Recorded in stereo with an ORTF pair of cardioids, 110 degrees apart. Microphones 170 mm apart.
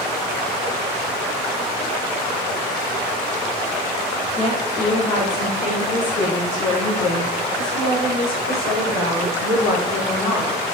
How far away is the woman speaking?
About 4.5 m.